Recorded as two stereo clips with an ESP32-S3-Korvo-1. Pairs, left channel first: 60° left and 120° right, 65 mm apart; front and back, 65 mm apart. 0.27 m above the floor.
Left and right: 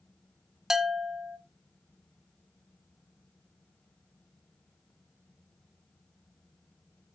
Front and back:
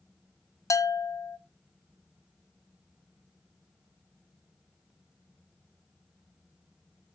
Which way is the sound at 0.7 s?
40° right.